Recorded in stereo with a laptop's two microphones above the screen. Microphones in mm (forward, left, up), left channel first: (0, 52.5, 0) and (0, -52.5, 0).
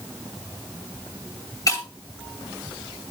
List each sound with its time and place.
1.7 s breaking glass: 35° left (ahead or behind), 2 m